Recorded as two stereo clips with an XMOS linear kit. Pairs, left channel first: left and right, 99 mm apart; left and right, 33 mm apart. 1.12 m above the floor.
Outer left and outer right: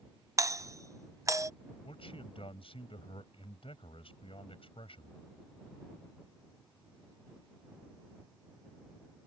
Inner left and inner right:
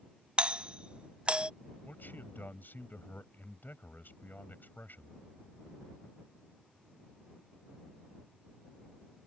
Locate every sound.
0.4 s a doorbell: 35° right (ahead or behind)
1.8 s a man speaking: 70° left (ahead or behind)